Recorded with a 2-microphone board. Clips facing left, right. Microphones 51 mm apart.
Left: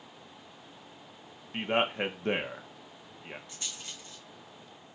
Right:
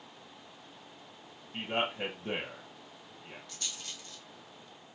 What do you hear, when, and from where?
1.5 s a man speaking: 60° left (ahead or behind), 0.9 m
3.5 s a rattle: 25° left (ahead or behind), 1.7 m